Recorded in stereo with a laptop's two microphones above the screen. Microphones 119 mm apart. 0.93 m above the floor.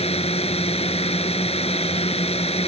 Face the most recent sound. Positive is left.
turn(degrees=55)  # may be behind; listen again after turning